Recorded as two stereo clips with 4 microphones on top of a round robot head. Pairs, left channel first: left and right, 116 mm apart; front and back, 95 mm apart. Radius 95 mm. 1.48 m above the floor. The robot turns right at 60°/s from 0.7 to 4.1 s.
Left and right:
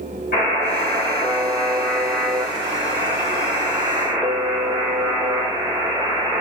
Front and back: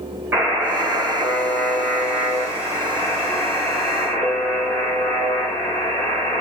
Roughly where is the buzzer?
Behind left.